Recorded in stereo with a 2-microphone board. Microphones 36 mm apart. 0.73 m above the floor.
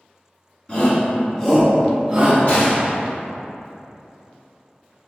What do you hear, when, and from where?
0.7 s a shout: 30° left (ahead or behind), 1.2 m; by 2.4 s 25° right (ahead or behind), 0.9 m
2.5 s a gunshot: 45° left (ahead or behind), 1.6 m